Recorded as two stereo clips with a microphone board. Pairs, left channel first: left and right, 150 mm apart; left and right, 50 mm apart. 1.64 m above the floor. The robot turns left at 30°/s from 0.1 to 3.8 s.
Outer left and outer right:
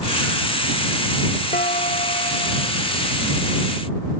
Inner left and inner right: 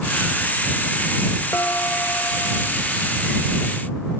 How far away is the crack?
I don't hear a crack.